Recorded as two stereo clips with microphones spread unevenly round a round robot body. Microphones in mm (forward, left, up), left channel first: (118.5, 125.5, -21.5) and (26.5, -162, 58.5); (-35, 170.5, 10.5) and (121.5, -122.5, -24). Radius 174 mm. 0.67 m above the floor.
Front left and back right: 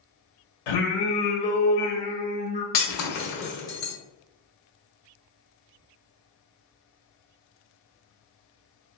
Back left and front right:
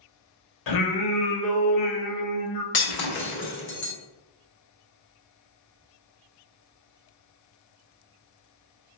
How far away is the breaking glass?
About 1.3 m.